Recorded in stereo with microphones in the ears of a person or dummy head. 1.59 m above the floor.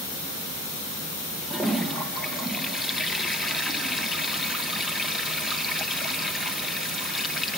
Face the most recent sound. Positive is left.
turn(degrees=0)  # may be behind; listen again after turning